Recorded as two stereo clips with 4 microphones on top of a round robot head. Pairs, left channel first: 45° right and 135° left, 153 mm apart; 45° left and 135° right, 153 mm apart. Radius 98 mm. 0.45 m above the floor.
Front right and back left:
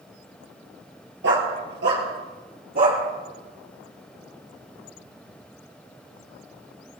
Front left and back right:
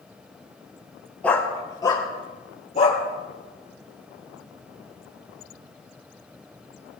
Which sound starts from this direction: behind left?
A dog barking, at 1.2 s.